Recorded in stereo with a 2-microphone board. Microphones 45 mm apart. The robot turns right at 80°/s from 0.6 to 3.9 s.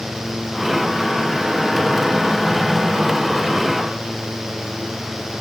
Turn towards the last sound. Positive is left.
No sound to turn to.